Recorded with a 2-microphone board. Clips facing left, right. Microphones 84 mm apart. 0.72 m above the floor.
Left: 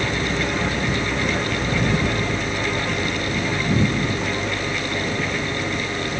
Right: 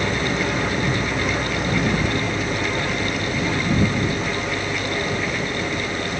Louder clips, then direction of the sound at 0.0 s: Right 1 dB; 10° right (ahead or behind).